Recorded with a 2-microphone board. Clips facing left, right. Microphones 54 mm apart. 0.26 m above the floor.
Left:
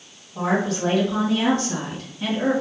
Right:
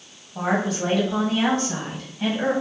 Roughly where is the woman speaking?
Right.